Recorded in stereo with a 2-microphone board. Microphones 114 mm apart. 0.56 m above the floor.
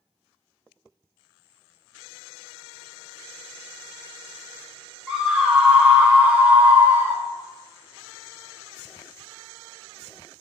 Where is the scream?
5° right (ahead or behind), 1.4 m; by 7.2 s 20° right (ahead or behind), 1.3 m.